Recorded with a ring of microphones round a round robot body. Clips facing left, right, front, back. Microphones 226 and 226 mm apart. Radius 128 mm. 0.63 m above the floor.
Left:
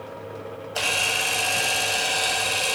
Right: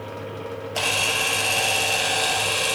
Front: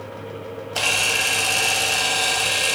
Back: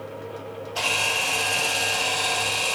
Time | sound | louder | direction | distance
0.8 | a camera shutter | right 2 dB, front 2 dB | 5° left | 1.6 m